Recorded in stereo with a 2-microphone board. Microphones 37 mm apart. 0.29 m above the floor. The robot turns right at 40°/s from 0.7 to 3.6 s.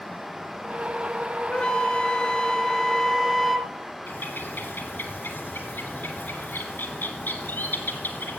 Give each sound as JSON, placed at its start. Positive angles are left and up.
{"t": 1.5, "sound": "a flute", "azimuth_deg": 95, "distance_m": 0.6}
{"t": 4.1, "sound": "a bird", "side_deg": 75, "distance_m": 1.5}